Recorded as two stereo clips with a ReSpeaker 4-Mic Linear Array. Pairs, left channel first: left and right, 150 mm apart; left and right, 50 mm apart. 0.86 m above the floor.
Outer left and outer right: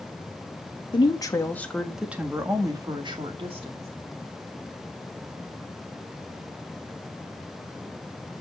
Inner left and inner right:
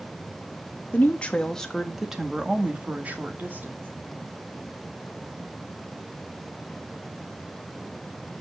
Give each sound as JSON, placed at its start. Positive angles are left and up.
{"t": 0.9, "sound": "a woman speaking", "side_deg": 35, "distance_m": 1.6}